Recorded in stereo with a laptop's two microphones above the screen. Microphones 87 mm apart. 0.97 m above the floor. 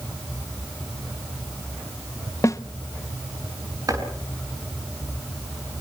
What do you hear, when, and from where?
2.4 s a snare drum: 40° left (ahead or behind), 1.0 m
3.9 s chopping: 45° right (ahead or behind), 6 m